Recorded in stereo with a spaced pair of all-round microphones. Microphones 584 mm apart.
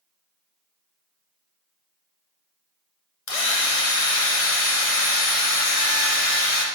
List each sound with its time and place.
3.3 s a drill: 65° left (ahead or behind), 1.0 m